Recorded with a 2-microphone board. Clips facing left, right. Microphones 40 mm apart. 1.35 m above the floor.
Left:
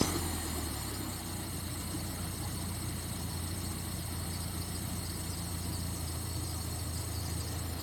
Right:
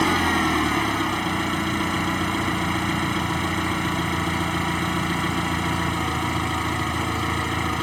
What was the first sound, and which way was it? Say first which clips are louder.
An engine running: right 15 dB; 75° right (ahead or behind).